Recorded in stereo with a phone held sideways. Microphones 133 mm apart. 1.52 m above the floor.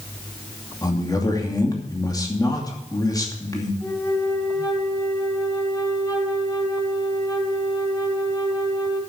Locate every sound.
0.8 s a man speaking: 30° left (ahead or behind), 2.5 m
3.8 s a flute: 25° left (ahead or behind), 3.5 m